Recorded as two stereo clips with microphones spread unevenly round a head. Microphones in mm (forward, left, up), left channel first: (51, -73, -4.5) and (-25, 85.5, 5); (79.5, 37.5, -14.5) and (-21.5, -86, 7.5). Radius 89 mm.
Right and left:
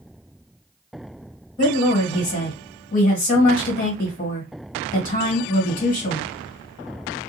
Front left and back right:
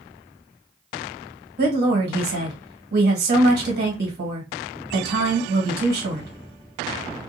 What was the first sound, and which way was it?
A woman speaking, 115° right.